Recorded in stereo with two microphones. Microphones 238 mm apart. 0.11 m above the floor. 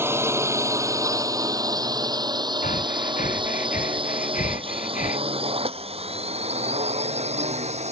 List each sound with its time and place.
0.0 s a drone: 10° right (ahead or behind); by 7.9 s 25° right (ahead or behind)
2.6 s breathing: 35° left (ahead or behind)